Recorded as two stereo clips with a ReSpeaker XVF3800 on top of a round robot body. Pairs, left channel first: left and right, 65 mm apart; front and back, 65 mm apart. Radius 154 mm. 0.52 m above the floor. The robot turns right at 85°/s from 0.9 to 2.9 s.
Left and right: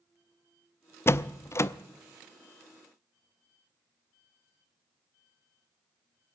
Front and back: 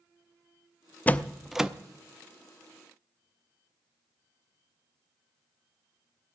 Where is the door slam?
55° left, 0.8 m; by 1.7 s 110° left, 0.8 m.